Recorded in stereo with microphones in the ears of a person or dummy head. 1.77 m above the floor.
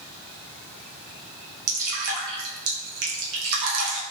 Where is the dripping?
65° right (ahead or behind), 0.8 m.